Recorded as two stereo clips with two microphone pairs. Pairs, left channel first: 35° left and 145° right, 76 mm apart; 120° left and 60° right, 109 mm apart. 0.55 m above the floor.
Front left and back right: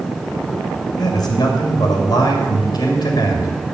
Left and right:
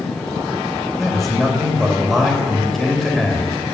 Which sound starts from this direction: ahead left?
A man speaking, at 1.0 s.